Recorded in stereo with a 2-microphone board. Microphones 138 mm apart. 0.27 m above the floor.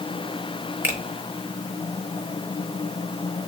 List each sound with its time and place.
0.8 s a finger snap: 15° right (ahead or behind), 1.2 m